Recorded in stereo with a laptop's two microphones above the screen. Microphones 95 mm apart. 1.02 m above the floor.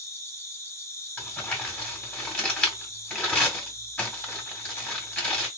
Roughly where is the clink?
No clink in this recording.